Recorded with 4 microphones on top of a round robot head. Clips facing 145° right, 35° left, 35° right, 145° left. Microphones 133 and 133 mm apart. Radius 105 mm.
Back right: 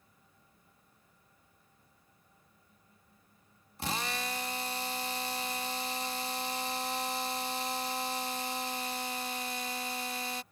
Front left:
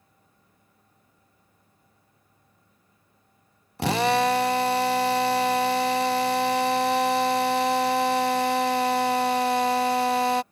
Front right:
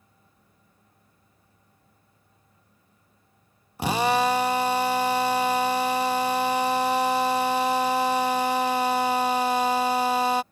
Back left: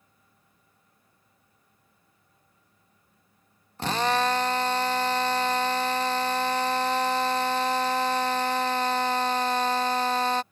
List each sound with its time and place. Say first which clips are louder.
3.8 s a drill: front left 15 dB, front right 3 dB; 40° left